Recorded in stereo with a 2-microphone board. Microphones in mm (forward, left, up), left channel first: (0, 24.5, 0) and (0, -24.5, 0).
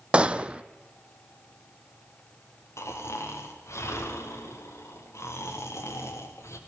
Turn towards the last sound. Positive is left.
turn(degrees=85)